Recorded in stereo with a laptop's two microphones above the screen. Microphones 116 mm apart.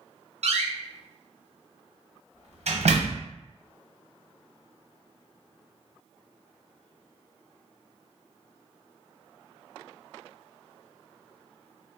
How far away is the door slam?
About 0.7 m.